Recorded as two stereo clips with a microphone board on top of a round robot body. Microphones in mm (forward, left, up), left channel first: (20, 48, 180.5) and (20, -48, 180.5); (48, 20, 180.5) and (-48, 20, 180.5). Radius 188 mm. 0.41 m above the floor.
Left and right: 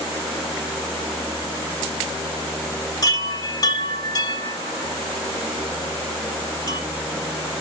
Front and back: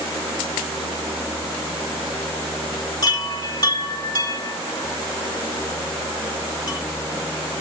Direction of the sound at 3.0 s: 40° left.